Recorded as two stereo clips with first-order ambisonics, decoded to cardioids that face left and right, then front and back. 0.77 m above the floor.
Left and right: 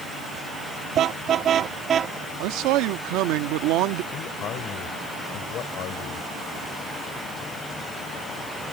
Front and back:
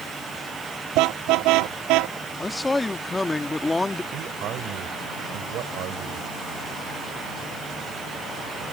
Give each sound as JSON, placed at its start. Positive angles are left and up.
{"t": 0.9, "sound": "a car horn", "azimuth_deg": -145}
{"t": 2.4, "sound": "a man speaking", "azimuth_deg": -80}
{"t": 4.1, "sound": "a man speaking", "azimuth_deg": 140}